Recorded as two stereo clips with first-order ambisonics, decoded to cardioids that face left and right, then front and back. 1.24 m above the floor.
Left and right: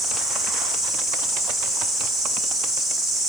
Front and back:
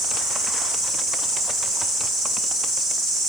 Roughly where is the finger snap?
I don't hear a finger snap.